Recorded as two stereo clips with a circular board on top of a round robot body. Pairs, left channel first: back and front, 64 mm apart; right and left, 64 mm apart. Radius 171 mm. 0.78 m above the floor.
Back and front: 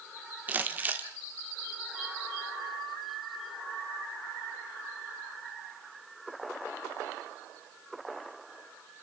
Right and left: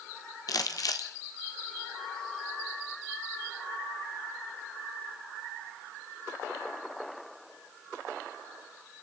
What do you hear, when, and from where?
0.5 s crumpling: 65° right, 1.5 m